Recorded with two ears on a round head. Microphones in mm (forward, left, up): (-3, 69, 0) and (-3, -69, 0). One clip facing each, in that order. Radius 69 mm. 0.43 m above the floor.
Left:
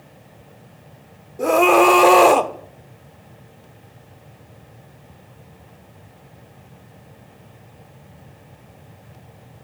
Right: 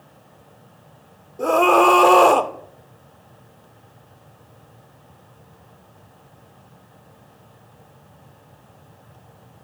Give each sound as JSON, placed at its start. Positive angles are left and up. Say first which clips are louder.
{"t": 1.4, "sound": "a scream", "louder": "left 1 dB", "side_deg": 10, "distance_m": 1.2}